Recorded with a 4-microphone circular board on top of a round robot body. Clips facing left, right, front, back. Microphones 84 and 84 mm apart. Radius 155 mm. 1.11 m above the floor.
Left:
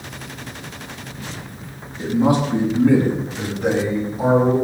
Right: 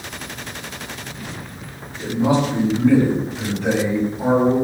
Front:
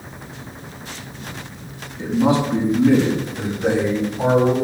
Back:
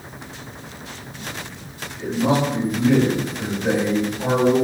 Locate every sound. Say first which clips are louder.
2.0 s a man speaking: left 1 dB, front 2 dB; 60° left, 9 m; by 4.5 s 40° left, 9 m